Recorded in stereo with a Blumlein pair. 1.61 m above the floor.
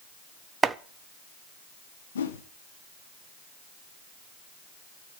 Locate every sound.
0.6 s chopping: 15° right, 0.7 m
2.1 s a whoosh: 65° left, 1.5 m